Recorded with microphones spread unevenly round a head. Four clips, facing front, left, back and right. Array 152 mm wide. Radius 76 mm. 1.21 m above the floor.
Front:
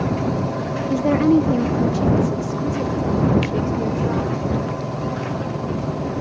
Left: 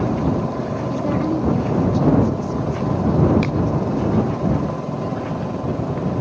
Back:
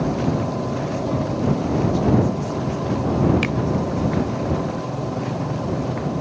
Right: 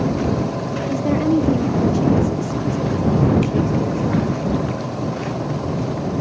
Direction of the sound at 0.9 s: 20° right.